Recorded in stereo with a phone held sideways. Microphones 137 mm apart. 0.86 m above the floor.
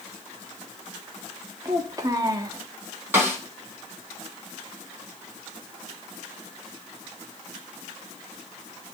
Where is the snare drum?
15° right (ahead or behind), 3 m.